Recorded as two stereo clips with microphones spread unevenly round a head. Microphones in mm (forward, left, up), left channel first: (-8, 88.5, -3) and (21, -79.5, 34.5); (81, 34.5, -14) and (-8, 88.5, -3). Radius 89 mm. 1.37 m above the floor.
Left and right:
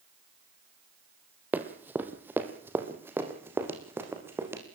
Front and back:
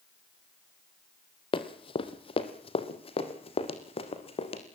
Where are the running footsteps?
15° right, 2.0 m; by 4.6 s 10° right, 4 m.